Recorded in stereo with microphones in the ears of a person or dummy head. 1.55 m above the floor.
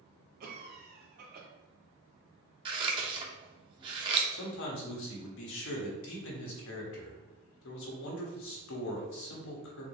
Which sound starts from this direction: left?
A man speaking, at 4.3 s.